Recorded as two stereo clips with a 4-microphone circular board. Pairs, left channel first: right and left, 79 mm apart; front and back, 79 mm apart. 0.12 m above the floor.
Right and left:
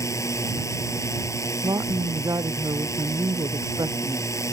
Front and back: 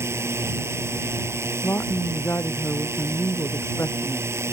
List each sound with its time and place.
0.0 s a drone: 135° right
1.6 s a woman speaking: 55° left